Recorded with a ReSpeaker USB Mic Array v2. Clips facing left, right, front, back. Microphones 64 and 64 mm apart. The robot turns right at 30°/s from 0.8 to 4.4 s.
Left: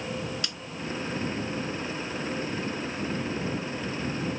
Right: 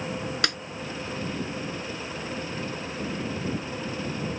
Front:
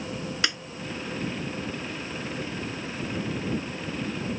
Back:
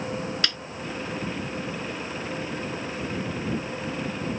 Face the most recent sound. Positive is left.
turn(degrees=35)